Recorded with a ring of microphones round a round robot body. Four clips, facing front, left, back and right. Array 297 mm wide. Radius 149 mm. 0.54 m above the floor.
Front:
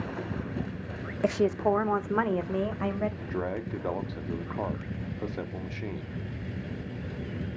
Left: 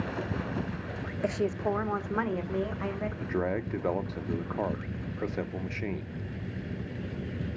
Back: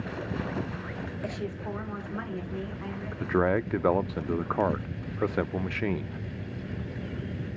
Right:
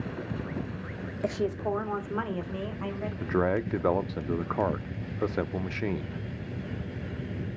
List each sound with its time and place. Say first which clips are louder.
1.2 s a woman speaking: even, front 13 dB; straight ahead, 0.9 m; by 3.1 s 10° left, 2.5 m
3.2 s a man speaking: right 5 dB, back 7 dB; 150° right, 0.7 m